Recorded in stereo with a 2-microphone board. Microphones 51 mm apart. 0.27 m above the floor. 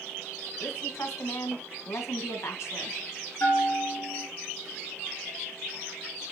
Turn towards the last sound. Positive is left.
turn(degrees=45)  # may be behind; listen again after turning